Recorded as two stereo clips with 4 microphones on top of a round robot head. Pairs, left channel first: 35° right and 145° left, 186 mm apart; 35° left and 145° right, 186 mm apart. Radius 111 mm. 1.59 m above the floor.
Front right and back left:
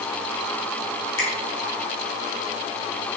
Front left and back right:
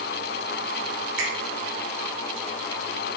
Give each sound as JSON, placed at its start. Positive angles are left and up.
{"t": 1.2, "sound": "a finger snap", "azimuth_deg": -105, "distance_m": 3.0}